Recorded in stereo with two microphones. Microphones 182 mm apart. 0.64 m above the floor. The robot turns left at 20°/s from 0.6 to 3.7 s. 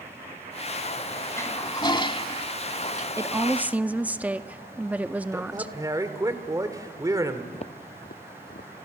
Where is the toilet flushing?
15° left (ahead or behind), 0.9 m; by 3.1 s 45° left (ahead or behind), 0.9 m.